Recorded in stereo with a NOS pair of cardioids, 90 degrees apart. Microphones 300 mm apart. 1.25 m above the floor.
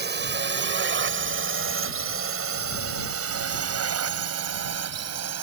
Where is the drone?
35° right; by 5.4 s 60° right.